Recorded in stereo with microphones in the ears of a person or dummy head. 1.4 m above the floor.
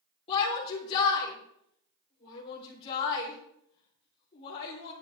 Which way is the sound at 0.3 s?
30° left (ahead or behind).